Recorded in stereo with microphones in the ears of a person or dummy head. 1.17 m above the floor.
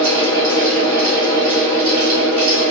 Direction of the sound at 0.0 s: 20° left (ahead or behind).